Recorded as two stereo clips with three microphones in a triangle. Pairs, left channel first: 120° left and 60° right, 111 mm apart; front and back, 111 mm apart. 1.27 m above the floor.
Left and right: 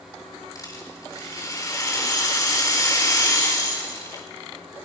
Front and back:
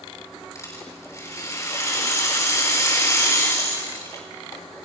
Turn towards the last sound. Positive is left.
turn(degrees=60)